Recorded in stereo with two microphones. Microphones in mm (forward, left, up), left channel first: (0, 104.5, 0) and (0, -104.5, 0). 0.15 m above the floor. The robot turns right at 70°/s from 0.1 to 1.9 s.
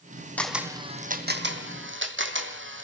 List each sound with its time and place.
0.4 s a camera shutter: 10° left (ahead or behind), 2.5 m; by 2.9 s 80° right, 2.5 m